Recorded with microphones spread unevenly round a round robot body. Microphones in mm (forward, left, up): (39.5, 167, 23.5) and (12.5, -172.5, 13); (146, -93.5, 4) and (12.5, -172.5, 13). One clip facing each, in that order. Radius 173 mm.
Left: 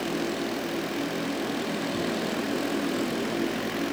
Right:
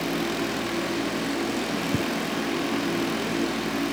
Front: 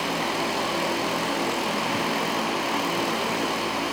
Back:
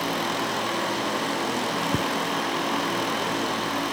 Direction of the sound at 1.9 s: 125° right.